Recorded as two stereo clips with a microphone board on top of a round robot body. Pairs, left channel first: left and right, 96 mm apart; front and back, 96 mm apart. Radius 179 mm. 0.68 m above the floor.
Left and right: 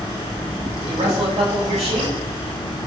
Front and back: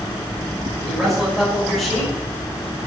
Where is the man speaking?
90° right, 5 m.